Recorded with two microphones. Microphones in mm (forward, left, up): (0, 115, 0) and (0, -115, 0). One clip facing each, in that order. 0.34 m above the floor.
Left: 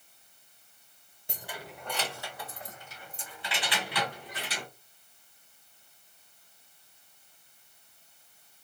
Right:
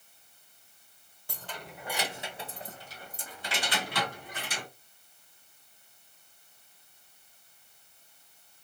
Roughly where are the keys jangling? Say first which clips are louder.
Left 1 dB; left.